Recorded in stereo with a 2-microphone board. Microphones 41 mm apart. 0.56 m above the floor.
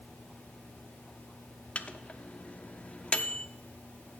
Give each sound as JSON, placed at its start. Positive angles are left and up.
{"t": 1.8, "sound": "a microwave", "side_deg": 30, "distance_m": 0.6}